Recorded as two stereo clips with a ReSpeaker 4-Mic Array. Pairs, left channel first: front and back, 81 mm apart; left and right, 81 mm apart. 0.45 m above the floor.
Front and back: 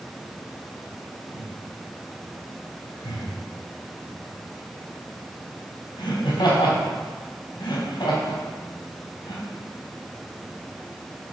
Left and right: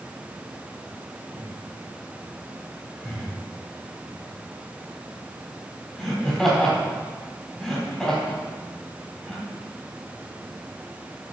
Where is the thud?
I don't hear a thud.